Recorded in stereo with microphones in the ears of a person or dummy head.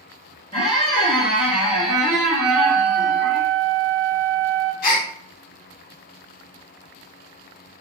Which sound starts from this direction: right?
A flute, at 2.4 s.